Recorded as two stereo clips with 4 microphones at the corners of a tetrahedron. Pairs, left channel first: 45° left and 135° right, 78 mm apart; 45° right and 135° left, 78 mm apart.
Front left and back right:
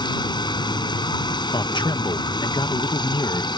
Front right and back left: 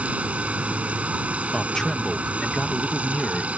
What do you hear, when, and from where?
0.0 s running water: 65° left
1.5 s a man speaking: 40° left